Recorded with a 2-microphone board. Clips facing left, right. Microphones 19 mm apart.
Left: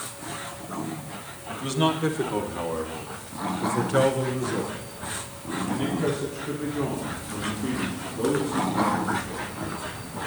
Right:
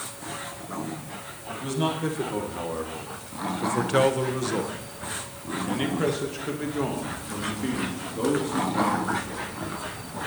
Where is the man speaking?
25° left (ahead or behind), 2 m; by 9.5 s 85° right, 3.5 m.